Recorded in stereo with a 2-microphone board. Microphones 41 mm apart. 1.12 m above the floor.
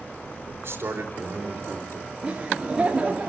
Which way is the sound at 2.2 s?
25° right (ahead or behind).